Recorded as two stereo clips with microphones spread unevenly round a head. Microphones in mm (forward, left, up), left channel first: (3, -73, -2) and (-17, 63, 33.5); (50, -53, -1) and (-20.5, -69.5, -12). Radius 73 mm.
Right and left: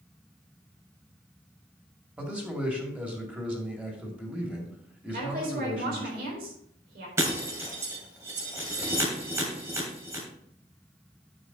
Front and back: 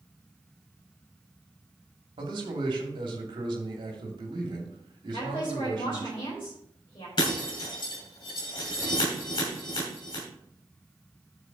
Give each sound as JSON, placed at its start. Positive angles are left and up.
{"t": 2.2, "sound": "a man speaking", "azimuth_deg": 180, "distance_m": 2.5}
{"t": 5.1, "sound": "a woman speaking", "azimuth_deg": 65, "distance_m": 4.0}
{"t": 7.2, "sound": "breaking glass", "azimuth_deg": 30, "distance_m": 2.5}